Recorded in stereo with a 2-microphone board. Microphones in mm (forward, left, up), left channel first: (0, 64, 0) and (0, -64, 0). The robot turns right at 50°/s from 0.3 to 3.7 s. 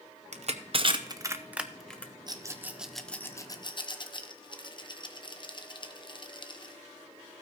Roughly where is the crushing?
Right.